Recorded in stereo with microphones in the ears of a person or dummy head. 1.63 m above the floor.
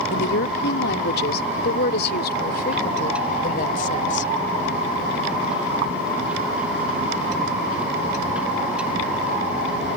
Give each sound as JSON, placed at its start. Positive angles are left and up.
{"t": 0.1, "sound": "a woman speaking", "side_deg": 70}